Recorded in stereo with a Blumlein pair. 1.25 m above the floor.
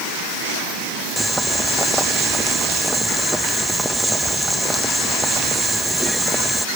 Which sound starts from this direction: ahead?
Boiling, at 1.2 s.